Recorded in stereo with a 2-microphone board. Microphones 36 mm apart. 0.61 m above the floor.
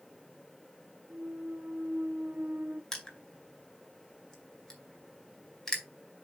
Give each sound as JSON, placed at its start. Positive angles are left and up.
{"t": 1.1, "sound": "a clunk", "side_deg": -50, "distance_m": 0.6}
{"t": 2.9, "sound": "crushing", "side_deg": 15, "distance_m": 2.0}